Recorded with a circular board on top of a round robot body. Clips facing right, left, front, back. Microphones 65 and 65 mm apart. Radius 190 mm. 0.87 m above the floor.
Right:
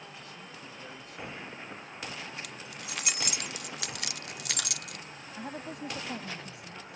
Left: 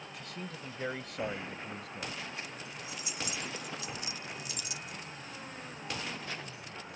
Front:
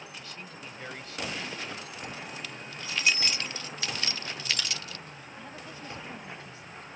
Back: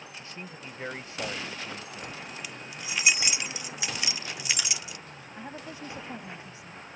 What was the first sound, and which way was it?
A man speaking, 115° left.